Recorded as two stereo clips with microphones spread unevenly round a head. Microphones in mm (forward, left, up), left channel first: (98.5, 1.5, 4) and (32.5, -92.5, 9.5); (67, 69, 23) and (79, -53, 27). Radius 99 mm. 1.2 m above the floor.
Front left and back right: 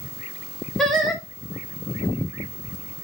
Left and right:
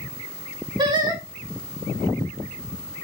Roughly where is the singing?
Ahead right.